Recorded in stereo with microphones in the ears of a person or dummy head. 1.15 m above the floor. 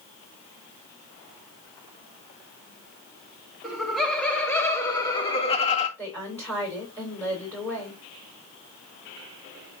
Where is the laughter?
Centre (ahead or behind), 2.5 m; by 5.9 s 35° left (ahead or behind), 1.9 m.